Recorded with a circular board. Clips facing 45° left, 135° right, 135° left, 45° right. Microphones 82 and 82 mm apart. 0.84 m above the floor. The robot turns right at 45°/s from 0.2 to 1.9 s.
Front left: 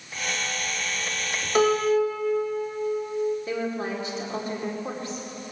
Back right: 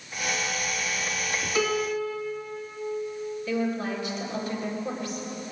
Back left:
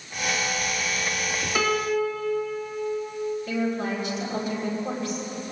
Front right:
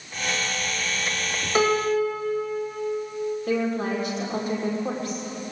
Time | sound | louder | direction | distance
1.6 | a piano | front left 7 dB, front right 3 dB | 10° left | 1.3 m
3.5 | a woman speaking | back right 1 dB, front right 4 dB | 10° right | 2.5 m